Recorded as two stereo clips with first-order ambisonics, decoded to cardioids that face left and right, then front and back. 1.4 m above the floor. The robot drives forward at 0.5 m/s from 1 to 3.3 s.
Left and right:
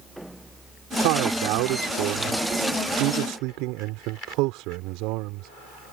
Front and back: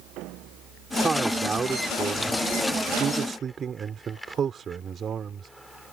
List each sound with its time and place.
1.0 s a man speaking: 100° right; by 5.5 s 115° right